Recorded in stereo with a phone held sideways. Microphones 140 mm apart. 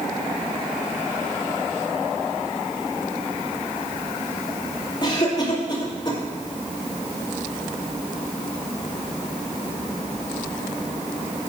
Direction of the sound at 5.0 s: 30° left (ahead or behind).